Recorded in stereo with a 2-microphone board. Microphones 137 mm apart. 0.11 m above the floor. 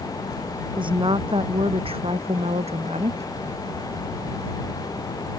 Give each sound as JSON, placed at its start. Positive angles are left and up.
{"t": 0.8, "sound": "a woman speaking", "side_deg": -40}